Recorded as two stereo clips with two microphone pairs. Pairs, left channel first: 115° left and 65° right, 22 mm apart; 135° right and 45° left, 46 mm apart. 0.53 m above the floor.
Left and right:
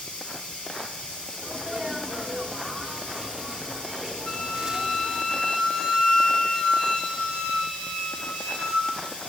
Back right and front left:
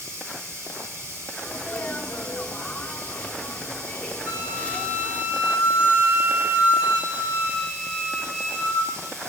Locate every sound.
0.0 s running water: 65° left, 5 m
1.4 s a sneeze: 110° right, 1.0 m
4.2 s a flute: 90° left, 2 m